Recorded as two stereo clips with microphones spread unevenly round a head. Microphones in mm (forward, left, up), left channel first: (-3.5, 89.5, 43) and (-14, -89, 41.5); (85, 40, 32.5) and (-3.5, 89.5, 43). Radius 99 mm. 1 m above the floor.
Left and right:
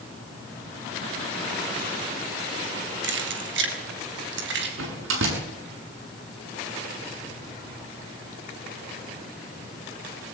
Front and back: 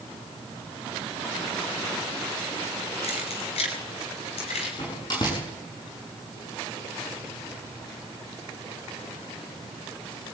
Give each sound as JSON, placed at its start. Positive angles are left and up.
{"t": 3.0, "sound": "keys jangling", "azimuth_deg": -75, "distance_m": 3.0}
{"t": 4.8, "sound": "a door slam", "azimuth_deg": -95, "distance_m": 7.0}